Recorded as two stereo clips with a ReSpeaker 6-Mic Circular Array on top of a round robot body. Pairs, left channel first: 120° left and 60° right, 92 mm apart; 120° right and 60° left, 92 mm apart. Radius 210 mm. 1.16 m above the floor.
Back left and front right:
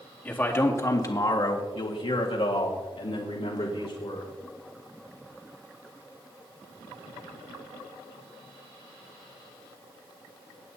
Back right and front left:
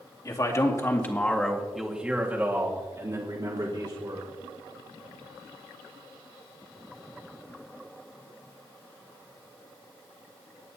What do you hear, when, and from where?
0.2 s a man speaking: 170° right, 2 m; by 4.3 s 95° left, 3 m